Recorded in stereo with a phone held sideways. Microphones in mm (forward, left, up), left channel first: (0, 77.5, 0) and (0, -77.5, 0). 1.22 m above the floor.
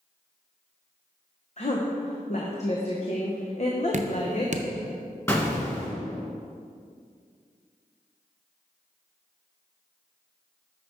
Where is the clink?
I don't hear a clink.